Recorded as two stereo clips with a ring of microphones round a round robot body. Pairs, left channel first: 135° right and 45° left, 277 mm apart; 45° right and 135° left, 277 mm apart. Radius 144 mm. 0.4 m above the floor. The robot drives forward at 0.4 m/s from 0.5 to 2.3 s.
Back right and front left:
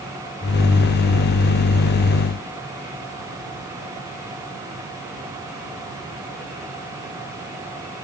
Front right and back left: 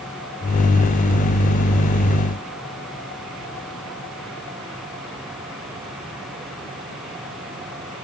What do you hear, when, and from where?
Only background noise.